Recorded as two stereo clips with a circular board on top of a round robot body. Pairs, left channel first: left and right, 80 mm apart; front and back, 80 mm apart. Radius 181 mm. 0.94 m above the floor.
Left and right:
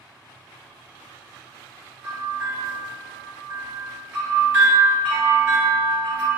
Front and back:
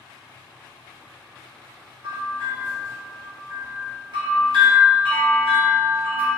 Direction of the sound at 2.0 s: 160° right.